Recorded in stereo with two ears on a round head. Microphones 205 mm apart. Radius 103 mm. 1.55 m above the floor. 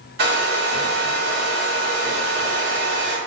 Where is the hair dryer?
50° right (ahead or behind), 0.9 m.